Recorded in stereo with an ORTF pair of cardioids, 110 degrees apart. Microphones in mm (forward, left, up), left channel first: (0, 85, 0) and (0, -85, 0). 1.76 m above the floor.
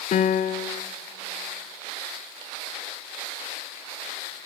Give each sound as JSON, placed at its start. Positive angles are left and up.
{"t": 0.1, "sound": "a piano", "azimuth_deg": 45, "distance_m": 0.6}